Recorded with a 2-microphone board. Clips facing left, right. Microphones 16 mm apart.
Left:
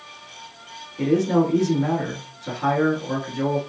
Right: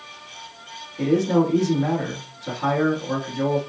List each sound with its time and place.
1.0 s a man speaking: centre (ahead or behind), 1.2 m